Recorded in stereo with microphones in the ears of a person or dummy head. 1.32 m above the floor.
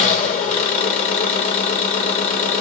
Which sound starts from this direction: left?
An engine running, at 0.0 s.